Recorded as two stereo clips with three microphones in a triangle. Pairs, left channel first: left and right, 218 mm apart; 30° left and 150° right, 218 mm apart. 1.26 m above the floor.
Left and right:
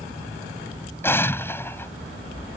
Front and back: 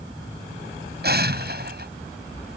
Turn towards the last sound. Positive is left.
turn(degrees=170)